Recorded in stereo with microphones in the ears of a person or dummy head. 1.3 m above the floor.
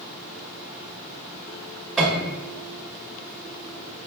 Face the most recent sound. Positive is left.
turn(degrees=0)  # may be behind; listen again after turning